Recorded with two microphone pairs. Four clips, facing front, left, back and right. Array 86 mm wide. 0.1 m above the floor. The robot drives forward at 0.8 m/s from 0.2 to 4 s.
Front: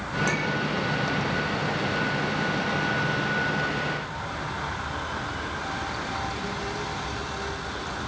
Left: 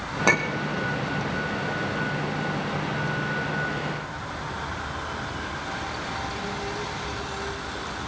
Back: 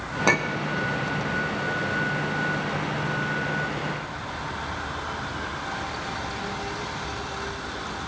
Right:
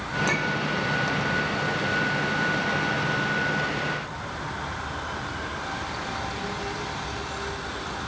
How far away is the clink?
About 3.5 m.